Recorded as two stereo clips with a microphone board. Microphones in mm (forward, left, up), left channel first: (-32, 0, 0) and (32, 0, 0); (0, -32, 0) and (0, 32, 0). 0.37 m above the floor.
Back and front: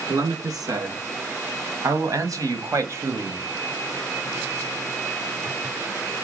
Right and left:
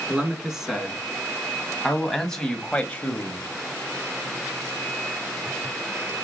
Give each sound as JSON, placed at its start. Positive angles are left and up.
{"t": 0.1, "sound": "a man speaking", "azimuth_deg": 10, "distance_m": 3.5}